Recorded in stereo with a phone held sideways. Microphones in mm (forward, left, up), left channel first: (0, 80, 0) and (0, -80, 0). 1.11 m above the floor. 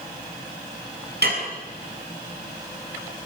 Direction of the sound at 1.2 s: 80° right.